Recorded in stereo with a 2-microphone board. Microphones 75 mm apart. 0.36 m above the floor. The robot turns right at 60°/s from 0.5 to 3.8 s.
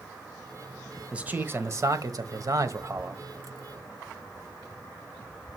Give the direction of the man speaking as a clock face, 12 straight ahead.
5 o'clock.